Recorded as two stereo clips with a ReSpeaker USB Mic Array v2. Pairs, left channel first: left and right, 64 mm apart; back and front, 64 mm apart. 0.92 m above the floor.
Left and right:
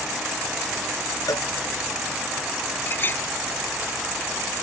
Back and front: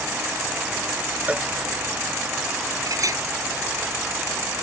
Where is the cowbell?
65° left.